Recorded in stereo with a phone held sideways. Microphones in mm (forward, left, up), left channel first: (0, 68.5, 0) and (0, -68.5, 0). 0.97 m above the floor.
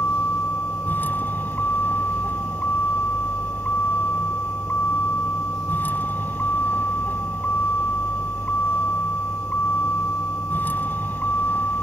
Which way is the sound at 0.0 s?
15° left (ahead or behind).